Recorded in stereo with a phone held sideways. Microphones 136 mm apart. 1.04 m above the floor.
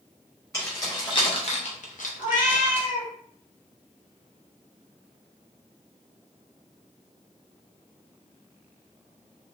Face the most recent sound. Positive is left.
turn(degrees=80)